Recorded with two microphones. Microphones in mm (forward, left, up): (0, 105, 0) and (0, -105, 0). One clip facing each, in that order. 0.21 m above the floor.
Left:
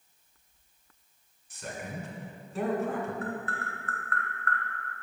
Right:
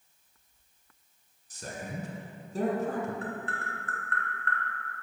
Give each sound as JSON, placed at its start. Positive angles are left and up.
{"t": 1.5, "sound": "a man speaking", "side_deg": -40, "distance_m": 1.4}
{"t": 3.2, "sound": "tapping", "side_deg": -30, "distance_m": 1.9}